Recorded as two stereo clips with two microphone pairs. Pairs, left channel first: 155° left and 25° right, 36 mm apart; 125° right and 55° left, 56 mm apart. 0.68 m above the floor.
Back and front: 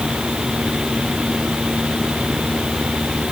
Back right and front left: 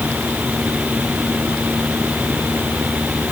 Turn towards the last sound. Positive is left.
No sound to turn to.